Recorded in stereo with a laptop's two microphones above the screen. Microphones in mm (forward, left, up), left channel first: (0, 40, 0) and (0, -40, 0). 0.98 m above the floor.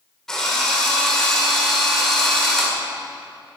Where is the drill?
5° left (ahead or behind), 2.5 m.